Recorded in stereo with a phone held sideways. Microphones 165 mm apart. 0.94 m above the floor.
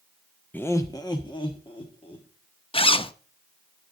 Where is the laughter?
10° left (ahead or behind), 0.6 m; by 2.3 s 35° left (ahead or behind), 2 m.